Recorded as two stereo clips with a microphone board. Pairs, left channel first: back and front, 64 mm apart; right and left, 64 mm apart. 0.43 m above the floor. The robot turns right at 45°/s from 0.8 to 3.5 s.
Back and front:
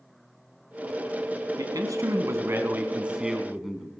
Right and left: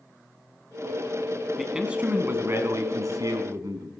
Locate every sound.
1.6 s a man speaking: 5° left, 3 m; by 3.9 s 90° left, 3 m